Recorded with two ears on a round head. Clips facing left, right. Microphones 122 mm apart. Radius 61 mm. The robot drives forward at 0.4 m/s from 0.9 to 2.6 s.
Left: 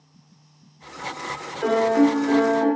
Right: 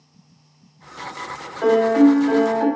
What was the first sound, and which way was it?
A piano, 70° right (ahead or behind).